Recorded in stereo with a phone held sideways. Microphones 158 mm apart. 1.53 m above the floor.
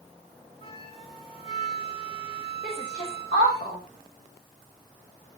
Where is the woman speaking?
60° left (ahead or behind), 6.5 m.